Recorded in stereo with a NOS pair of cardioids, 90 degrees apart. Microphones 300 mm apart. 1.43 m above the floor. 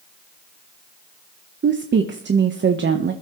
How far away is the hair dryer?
I don't hear a hair dryer.